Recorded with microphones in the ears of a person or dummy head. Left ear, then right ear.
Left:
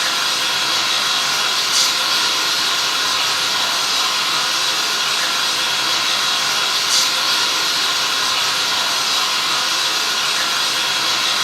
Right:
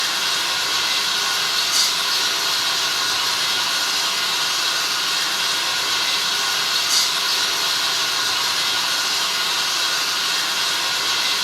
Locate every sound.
0.0 s running water: 25° right (ahead or behind), 1.1 m